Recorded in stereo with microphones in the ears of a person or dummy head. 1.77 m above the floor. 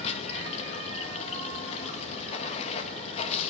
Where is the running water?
40° left (ahead or behind), 2.0 m.